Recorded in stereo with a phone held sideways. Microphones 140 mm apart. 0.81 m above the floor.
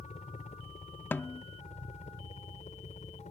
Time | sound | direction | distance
0.0 | a helicopter | 55° left (ahead or behind) | ?
1.1 | a snare drum | 15° left (ahead or behind) | ?